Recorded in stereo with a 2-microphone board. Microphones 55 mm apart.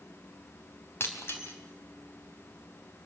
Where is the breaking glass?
50° left (ahead or behind), 3.5 m.